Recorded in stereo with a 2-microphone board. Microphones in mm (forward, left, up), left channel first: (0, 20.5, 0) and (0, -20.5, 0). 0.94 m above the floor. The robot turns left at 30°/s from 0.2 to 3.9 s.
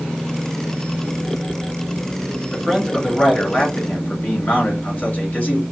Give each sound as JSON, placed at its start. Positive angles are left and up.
{"t": 2.5, "sound": "a man speaking", "azimuth_deg": -175, "distance_m": 2.5}